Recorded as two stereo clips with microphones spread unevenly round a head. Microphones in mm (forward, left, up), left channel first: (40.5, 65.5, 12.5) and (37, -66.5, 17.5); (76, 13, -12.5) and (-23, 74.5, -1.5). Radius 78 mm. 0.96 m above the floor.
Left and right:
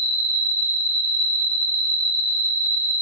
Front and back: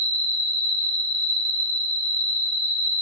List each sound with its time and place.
0.0 s an insect: 100° left, 1.0 m